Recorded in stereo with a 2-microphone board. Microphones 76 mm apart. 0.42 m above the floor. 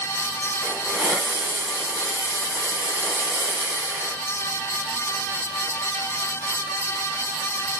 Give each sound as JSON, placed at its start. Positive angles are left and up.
{"t": 0.6, "sound": "a hiss", "side_deg": -15, "distance_m": 2.5}